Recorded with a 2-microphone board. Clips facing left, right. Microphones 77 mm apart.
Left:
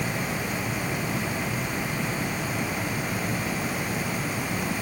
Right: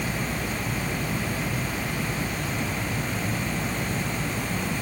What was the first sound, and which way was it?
Only background noise.